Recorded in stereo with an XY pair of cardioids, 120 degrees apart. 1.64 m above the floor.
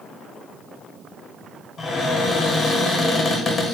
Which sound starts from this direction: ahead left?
A cupboard door, at 1.8 s.